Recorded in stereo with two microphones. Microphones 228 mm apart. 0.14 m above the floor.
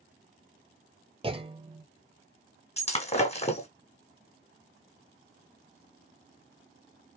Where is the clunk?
25° right (ahead or behind), 0.7 m.